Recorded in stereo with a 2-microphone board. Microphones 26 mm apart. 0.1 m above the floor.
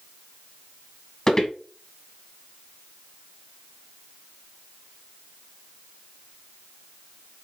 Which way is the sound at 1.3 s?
20° left (ahead or behind).